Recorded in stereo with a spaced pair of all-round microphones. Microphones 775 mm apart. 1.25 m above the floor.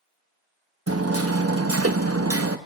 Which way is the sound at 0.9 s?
20° right (ahead or behind).